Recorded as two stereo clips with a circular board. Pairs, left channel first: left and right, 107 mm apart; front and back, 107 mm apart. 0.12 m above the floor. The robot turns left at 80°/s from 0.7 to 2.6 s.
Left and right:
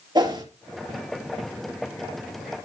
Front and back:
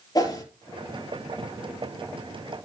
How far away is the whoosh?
About 3 m.